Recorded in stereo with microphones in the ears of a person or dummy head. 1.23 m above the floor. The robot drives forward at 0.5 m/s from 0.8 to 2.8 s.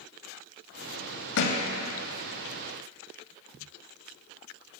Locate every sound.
1.4 s a thud: 60° left (ahead or behind), 1.0 m; by 1.6 s 55° left (ahead or behind), 1.0 m